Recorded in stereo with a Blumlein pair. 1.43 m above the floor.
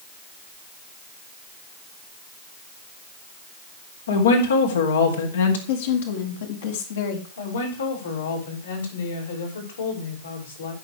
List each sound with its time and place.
4.1 s a woman speaking: 65° left, 3.5 m
5.7 s a woman speaking: 60° left, 3.5 m
7.4 s a woman speaking: 65° left, 6 m